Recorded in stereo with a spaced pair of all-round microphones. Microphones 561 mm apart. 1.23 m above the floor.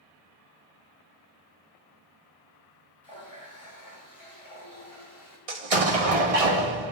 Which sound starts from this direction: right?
An explosion, at 5.5 s.